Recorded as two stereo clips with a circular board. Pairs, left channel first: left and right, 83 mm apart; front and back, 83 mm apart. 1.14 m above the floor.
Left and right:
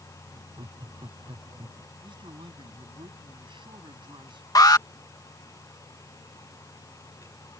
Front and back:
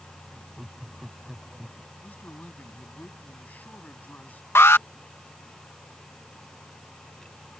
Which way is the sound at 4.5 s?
55° left.